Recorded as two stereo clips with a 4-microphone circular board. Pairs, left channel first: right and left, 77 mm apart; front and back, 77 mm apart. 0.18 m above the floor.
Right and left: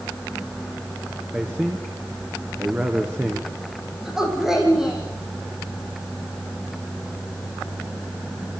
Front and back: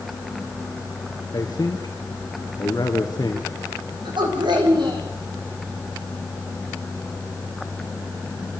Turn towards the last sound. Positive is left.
turn(degrees=175)